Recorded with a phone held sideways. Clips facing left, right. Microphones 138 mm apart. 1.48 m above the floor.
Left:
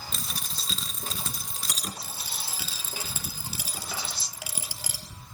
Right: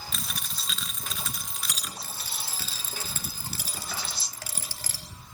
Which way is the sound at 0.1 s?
35° left (ahead or behind).